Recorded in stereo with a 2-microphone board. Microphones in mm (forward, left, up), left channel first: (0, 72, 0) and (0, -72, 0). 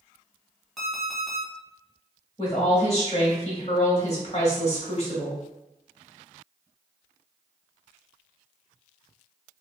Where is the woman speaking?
45° left (ahead or behind), 1.3 m.